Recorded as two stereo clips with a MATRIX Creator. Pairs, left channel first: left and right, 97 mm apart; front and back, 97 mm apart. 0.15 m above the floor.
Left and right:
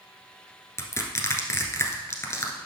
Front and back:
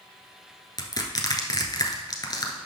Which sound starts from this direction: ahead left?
Crushing, at 0.8 s.